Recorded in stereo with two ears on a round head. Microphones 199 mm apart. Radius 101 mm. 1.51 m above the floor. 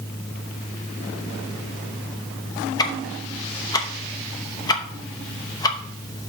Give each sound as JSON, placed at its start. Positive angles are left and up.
{"t": 2.8, "sound": "ticking", "side_deg": 20, "distance_m": 0.8}